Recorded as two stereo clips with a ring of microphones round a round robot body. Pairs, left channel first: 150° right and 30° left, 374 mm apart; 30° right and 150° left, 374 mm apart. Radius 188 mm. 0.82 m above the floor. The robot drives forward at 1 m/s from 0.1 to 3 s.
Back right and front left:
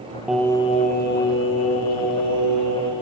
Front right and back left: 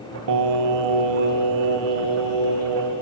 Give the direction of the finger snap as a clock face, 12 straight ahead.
I don't hear a finger snap.